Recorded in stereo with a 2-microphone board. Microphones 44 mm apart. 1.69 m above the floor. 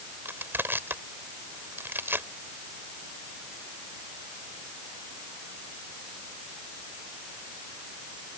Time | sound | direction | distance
0.2 | crushing | 50° right (ahead or behind) | ?